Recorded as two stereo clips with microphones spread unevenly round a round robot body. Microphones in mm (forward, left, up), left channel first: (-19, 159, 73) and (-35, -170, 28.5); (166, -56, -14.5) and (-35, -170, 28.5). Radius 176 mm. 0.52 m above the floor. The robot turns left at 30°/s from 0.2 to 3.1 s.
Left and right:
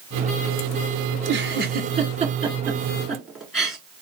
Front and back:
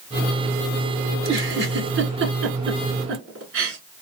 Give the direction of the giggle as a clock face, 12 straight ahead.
4 o'clock.